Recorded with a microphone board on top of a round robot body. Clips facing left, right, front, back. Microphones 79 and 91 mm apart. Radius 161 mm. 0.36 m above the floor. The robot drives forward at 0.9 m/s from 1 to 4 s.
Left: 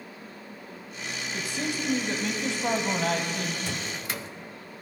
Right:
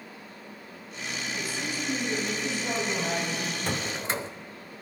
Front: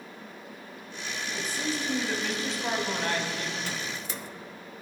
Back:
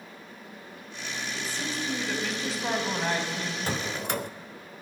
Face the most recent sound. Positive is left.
turn(degrees=-150)